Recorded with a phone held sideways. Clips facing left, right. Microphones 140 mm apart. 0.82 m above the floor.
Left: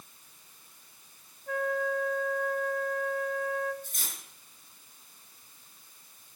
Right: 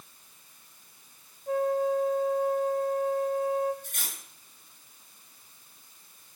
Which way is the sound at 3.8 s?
75° right (ahead or behind).